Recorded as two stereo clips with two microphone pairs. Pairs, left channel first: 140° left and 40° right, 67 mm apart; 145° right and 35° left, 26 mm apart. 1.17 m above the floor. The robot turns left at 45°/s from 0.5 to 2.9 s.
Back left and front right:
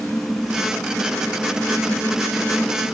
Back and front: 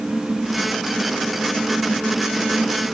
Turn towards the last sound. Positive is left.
No sound to turn to.